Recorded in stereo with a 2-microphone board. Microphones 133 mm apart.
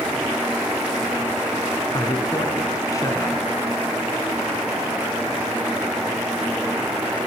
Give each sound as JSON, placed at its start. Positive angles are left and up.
{"t": 1.9, "sound": "a man speaking", "side_deg": 30, "distance_m": 1.6}